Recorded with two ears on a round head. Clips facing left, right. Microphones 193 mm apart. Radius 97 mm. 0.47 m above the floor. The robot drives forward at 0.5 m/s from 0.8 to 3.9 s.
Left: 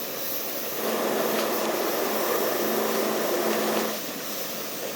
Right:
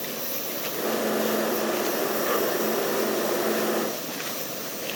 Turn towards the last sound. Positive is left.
turn(degrees=0)  # may be behind; listen again after turning